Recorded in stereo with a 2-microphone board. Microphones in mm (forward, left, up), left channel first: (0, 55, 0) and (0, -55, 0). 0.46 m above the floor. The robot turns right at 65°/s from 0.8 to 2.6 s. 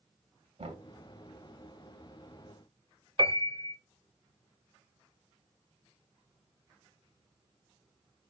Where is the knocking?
60° right (ahead or behind), 2.5 m.